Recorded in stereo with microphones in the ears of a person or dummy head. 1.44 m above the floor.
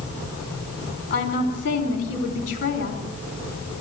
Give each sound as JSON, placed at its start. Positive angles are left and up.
{"t": 1.1, "sound": "a woman speaking", "side_deg": 45, "distance_m": 4.0}